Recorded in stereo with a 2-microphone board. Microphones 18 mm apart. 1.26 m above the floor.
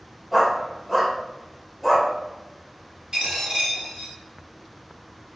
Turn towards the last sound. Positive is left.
turn(degrees=-50)  # may be behind; listen again after turning